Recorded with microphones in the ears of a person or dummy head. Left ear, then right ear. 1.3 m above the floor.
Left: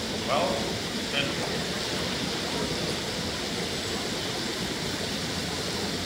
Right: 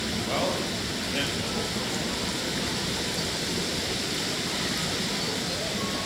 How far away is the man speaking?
About 7.5 m.